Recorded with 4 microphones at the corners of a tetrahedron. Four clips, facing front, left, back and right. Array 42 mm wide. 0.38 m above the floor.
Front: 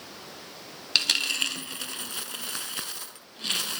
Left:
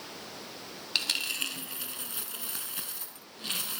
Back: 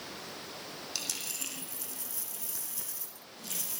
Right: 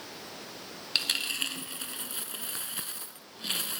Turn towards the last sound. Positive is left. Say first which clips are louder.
# right 1 dB, front 16 dB
turn(degrees=-10)